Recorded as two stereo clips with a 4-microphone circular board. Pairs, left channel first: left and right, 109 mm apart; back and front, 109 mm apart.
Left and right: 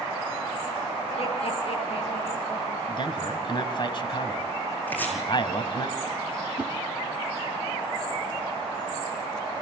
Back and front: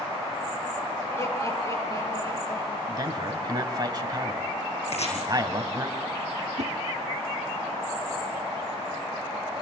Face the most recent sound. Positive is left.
turn(degrees=-15)